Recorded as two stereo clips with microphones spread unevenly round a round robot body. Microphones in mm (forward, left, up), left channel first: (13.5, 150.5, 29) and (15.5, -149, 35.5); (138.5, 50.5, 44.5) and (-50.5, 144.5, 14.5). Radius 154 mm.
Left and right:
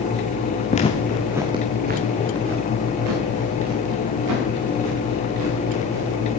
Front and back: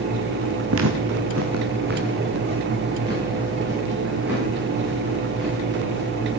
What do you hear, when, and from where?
0.7 s footsteps: 155° left, 1.6 m; by 6.4 s 115° right, 7.5 m